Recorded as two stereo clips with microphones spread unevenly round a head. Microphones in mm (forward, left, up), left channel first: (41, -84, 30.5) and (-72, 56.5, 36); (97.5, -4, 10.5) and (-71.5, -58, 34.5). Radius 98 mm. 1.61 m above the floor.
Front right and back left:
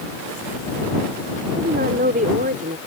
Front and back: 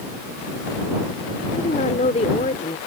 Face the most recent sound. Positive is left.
turn(degrees=80)